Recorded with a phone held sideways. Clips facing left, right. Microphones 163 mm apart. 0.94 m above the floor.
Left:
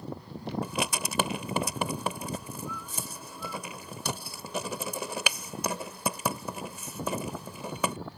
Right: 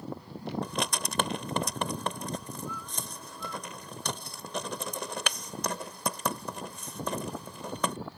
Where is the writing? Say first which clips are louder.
Left 1 dB; 5° left (ahead or behind).